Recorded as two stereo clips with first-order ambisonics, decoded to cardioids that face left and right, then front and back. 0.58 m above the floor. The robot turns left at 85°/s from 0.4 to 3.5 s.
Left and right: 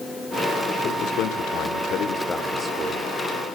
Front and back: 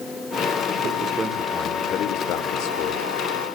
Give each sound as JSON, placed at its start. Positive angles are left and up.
{"t": 0.8, "sound": "a man speaking", "azimuth_deg": 140, "distance_m": 1.9}